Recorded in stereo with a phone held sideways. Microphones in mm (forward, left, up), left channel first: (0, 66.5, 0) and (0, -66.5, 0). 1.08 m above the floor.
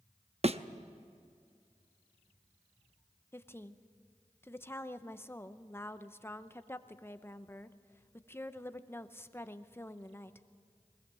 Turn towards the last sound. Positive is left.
turn(degrees=20)  # may be behind; listen again after turning